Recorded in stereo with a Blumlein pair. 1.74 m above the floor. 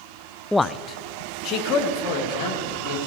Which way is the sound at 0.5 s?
Straight ahead.